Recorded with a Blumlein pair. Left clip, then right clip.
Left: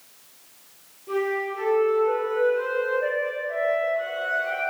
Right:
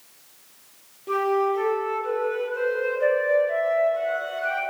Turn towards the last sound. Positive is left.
turn(degrees=-25)